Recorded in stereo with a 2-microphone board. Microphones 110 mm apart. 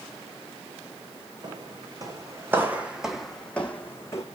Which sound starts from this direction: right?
Footsteps, at 1.4 s.